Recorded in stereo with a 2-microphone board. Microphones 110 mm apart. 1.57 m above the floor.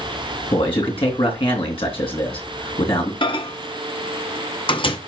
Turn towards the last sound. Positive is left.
turn(degrees=50)  # may be behind; listen again after turning